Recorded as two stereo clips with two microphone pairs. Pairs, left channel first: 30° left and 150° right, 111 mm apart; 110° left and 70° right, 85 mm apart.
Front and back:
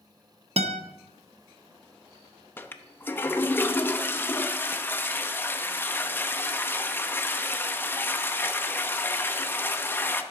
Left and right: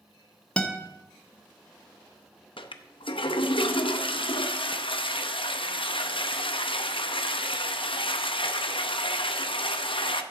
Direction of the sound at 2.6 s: 105° left.